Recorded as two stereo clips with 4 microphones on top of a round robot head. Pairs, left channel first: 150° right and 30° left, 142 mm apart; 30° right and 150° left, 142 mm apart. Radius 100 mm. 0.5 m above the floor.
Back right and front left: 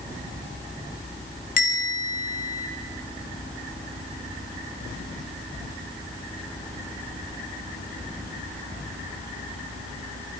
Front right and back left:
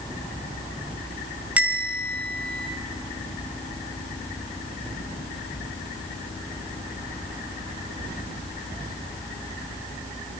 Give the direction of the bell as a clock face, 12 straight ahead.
4 o'clock.